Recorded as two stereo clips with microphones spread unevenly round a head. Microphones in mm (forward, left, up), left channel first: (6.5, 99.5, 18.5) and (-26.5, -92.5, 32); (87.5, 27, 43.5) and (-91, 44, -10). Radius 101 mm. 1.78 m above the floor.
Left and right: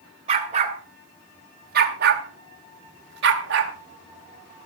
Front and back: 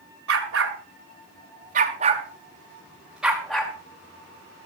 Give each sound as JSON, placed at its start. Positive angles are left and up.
{"t": 0.3, "sound": "a dog barking", "azimuth_deg": -155, "distance_m": 2.5}